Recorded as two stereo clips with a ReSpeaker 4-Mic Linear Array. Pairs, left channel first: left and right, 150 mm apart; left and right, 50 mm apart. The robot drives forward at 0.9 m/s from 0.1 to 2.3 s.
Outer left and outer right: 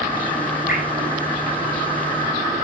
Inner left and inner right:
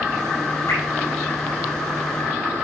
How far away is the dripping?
About 5.5 m.